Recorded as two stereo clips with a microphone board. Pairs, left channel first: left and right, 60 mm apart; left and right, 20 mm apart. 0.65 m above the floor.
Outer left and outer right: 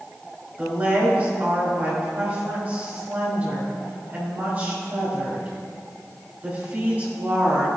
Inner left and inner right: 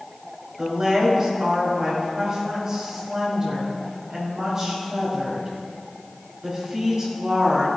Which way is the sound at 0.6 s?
30° right (ahead or behind).